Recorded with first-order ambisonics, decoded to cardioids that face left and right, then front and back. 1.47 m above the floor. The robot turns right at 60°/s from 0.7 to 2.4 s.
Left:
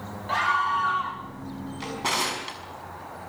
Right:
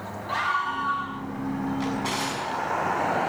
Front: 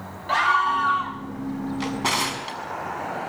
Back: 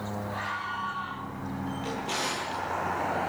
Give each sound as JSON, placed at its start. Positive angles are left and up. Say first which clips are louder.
{"t": 0.3, "sound": "a scream", "louder": "left 3 dB, front 15 dB", "azimuth_deg": 5, "distance_m": 2.5}
{"t": 1.8, "sound": "a drawer", "louder": "left 4 dB, front 8 dB", "azimuth_deg": 0, "distance_m": 5.5}